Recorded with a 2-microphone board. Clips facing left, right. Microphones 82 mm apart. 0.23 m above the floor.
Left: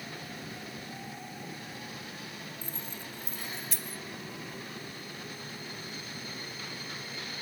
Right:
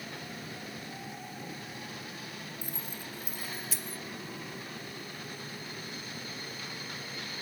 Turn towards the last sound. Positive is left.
turn(degrees=0)  # may be behind; listen again after turning